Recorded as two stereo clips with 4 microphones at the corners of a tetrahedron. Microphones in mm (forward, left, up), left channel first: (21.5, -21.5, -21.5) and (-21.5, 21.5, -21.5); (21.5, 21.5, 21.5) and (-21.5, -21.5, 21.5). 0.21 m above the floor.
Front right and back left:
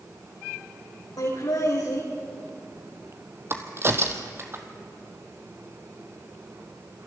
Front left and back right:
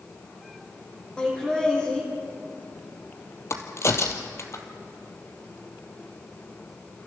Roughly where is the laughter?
Ahead right.